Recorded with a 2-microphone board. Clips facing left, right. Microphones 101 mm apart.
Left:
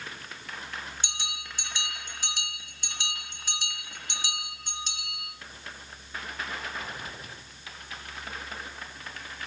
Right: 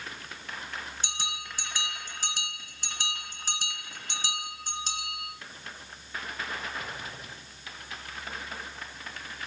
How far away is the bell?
About 2.5 m.